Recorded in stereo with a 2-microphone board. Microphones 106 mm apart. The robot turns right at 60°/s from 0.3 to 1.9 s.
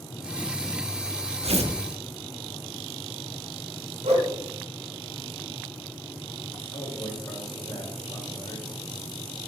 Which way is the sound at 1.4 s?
80° right.